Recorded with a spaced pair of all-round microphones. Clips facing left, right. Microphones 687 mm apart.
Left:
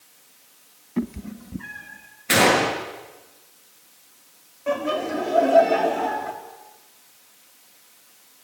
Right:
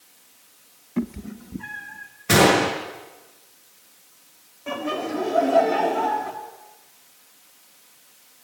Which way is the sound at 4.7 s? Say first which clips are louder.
Left 2 dB; 5° left (ahead or behind).